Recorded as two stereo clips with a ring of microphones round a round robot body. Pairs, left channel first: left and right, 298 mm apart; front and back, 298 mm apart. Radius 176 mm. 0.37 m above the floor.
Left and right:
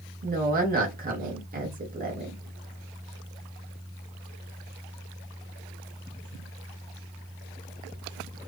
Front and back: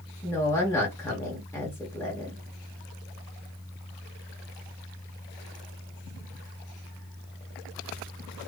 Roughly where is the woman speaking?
Right.